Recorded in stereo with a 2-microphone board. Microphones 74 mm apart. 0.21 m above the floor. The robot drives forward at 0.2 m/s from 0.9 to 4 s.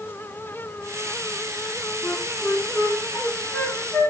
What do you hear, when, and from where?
2.0 s a flute: 45° left (ahead or behind), 0.8 m; by 4.1 s 30° left (ahead or behind), 1.1 m